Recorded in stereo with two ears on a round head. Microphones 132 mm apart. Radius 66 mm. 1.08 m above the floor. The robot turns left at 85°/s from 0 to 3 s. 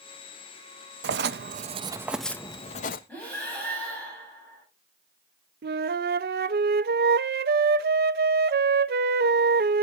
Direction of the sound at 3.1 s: 10° left (ahead or behind).